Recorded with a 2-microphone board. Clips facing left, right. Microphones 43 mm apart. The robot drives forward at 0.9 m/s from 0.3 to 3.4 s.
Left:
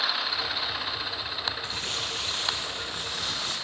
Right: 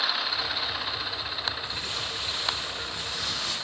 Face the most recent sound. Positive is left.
turn(degrees=40)  # may be behind; listen again after turning